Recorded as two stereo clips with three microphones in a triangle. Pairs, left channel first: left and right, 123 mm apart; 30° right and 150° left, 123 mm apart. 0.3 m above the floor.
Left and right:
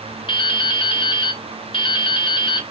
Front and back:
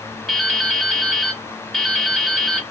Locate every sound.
0.3 s dripping: 55° left, 0.7 m